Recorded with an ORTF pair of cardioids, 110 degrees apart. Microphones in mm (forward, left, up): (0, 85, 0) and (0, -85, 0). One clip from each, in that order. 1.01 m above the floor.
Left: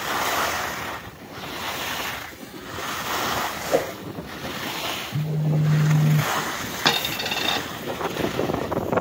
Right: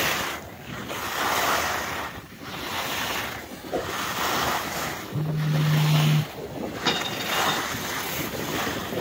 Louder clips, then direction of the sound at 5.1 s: Left 1 dB; 30° left.